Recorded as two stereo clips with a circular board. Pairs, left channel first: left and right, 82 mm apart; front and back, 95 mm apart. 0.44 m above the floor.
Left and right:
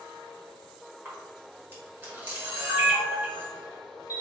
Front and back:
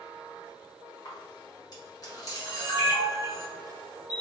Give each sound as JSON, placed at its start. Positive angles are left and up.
{"t": 1.1, "sound": "a camera shutter", "azimuth_deg": -30, "distance_m": 1.5}